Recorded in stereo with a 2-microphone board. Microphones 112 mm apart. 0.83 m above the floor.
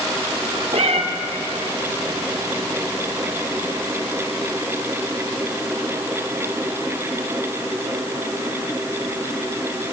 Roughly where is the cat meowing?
Right.